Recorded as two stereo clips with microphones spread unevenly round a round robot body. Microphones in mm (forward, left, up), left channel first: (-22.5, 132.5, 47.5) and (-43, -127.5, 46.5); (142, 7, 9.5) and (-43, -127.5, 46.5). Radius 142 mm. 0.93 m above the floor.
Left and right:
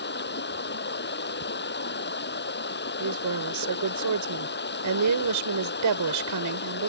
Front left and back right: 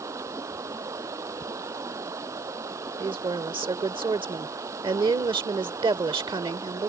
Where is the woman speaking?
75° right.